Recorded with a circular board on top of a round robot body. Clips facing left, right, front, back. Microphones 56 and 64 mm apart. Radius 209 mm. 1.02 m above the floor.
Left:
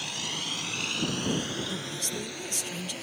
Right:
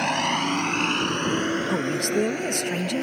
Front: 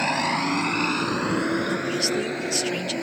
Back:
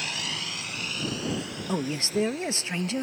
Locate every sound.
0.0 s a vehicle: 50° right; by 3.0 s 40° right
1.7 s a man speaking: 120° right